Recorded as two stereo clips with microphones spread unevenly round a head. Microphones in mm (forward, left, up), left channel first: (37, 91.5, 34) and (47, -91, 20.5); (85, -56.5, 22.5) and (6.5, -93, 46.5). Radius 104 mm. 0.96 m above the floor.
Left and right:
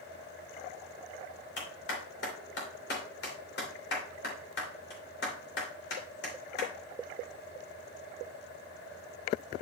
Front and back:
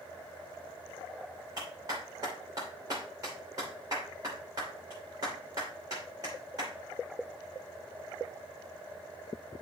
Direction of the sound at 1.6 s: 135° left.